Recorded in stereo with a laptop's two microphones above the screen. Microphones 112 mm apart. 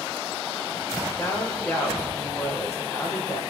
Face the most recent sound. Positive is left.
turn(degrees=25)  # may be behind; listen again after turning